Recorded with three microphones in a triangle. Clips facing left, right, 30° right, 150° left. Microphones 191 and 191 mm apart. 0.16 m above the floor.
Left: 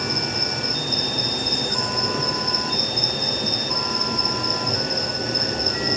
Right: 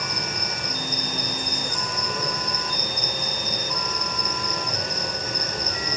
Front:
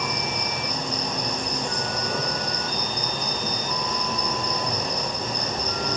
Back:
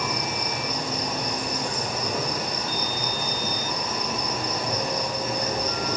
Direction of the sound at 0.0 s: 65° left.